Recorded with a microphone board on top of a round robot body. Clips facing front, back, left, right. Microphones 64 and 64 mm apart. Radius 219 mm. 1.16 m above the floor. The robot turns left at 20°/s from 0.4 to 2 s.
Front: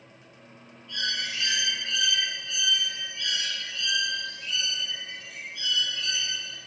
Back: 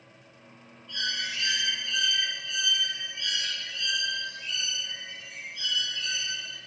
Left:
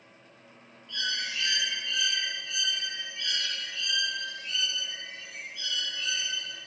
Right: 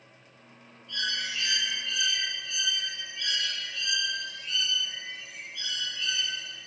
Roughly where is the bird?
Right.